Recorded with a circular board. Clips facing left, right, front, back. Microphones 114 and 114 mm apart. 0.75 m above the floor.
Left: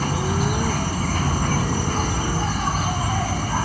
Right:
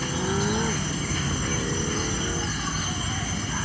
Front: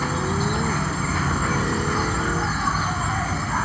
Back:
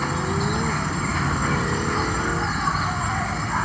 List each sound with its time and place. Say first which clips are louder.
0.0 s an insect: left 3 dB, even; 90° left